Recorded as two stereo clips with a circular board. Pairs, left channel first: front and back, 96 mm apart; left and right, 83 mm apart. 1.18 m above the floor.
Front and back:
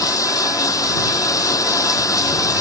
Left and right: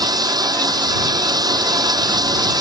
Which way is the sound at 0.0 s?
55° right.